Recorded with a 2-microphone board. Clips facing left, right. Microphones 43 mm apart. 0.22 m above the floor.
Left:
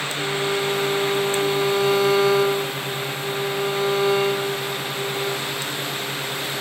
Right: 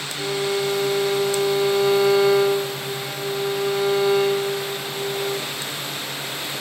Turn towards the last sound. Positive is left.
turn(degrees=25)  # may be behind; listen again after turning